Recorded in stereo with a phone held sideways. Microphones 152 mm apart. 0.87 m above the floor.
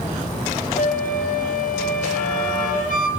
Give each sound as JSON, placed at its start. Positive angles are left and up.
{"t": 0.8, "sound": "a flute", "side_deg": 65, "distance_m": 4.5}